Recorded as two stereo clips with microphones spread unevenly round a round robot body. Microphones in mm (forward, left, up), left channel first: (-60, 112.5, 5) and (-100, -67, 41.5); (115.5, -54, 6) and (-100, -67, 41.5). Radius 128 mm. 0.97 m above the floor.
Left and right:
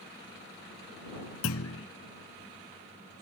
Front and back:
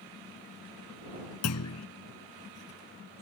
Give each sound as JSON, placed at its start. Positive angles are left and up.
{"t": 1.4, "sound": "a clunk", "azimuth_deg": 40}